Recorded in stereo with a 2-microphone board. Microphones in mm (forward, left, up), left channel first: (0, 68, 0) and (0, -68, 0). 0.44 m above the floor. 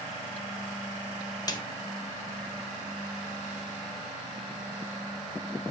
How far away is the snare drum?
About 1.6 m.